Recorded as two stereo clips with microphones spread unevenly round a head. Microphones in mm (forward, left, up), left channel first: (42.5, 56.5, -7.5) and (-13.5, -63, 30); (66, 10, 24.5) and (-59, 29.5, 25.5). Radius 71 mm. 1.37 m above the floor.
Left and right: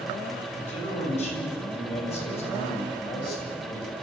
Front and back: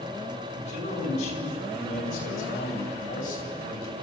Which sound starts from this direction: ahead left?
A man speaking, at 0.5 s.